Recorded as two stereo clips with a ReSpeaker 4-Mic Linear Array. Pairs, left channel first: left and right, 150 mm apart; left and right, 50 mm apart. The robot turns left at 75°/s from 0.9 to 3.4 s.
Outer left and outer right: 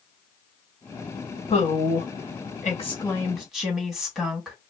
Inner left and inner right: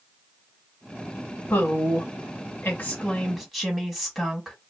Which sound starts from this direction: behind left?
A woman speaking, at 1.5 s.